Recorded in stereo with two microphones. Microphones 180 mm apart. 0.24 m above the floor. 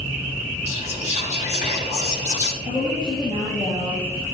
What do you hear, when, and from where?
0.7 s whispering: 40° left (ahead or behind), 2 m
2.6 s a woman speaking: 50° left (ahead or behind), 3.5 m